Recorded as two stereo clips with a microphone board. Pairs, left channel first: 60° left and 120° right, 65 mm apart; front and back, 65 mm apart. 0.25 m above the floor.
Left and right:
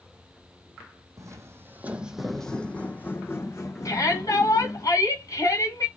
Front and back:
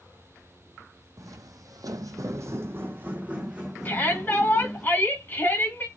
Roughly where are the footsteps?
Behind right.